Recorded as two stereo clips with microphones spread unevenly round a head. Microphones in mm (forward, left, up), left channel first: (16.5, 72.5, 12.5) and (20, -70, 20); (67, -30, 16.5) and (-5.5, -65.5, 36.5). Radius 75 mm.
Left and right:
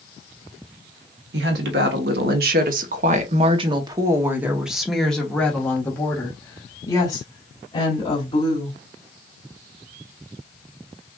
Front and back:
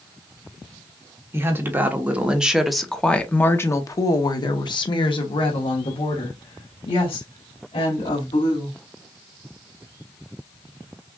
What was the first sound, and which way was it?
A woman speaking, 100° right.